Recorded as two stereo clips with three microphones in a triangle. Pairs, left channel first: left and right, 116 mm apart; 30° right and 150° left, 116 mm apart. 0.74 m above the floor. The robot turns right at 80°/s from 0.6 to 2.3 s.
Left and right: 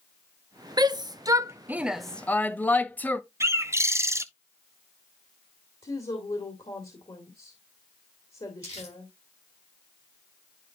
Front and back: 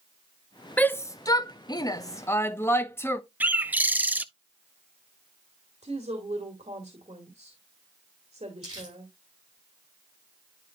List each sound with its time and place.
0.8 s a shout: 100° right, 0.7 m; by 3.2 s 20° left, 0.7 m
3.4 s a bird: 140° right, 0.5 m
5.8 s a woman speaking: 130° left, 2.5 m
8.6 s crumpling: 100° left, 8 m